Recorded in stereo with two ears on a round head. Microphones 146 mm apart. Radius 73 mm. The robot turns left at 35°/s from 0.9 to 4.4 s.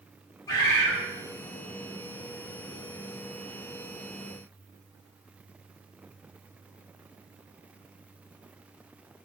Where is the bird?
25° left (ahead or behind), 0.9 m; by 1.0 s 20° left (ahead or behind), 0.9 m.